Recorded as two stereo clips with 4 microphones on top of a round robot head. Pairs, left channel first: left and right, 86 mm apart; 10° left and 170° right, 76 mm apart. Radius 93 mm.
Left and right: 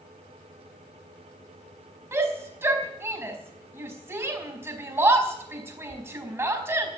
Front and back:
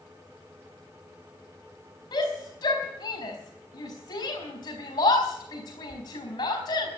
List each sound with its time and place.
2.1 s a shout: 30° right, 4.5 m